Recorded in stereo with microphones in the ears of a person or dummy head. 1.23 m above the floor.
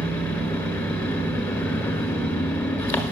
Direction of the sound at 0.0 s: 15° left (ahead or behind).